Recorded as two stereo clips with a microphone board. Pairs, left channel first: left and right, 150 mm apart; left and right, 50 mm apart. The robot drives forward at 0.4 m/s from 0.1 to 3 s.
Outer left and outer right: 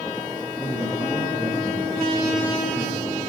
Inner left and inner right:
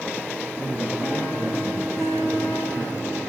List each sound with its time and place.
0.6 s a man speaking: 5° left (ahead or behind), 5 m